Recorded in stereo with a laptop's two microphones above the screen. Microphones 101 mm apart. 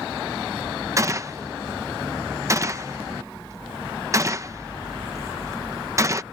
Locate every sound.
1.0 s a gunshot: 30° right (ahead or behind)